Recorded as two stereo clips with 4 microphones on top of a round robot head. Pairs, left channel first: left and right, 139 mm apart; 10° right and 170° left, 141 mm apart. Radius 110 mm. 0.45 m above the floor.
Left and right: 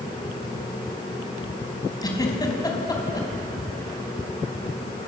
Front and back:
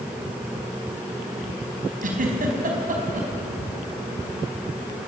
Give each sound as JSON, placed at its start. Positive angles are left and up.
{"t": 2.0, "sound": "a giggle", "azimuth_deg": 155, "distance_m": 4.5}